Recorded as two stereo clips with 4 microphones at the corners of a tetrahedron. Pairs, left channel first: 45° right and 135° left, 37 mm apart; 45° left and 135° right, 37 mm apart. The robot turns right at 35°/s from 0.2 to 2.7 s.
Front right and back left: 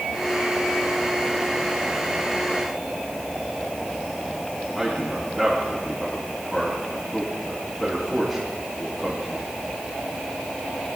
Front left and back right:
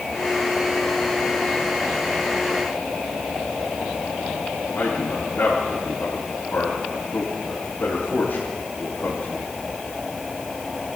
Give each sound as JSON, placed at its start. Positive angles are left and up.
{"t": 4.8, "sound": "a man speaking", "azimuth_deg": 35, "distance_m": 3.5}